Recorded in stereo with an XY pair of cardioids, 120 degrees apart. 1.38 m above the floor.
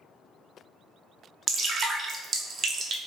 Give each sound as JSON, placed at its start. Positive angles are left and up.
{"t": 1.5, "sound": "dripping", "azimuth_deg": -40, "distance_m": 0.6}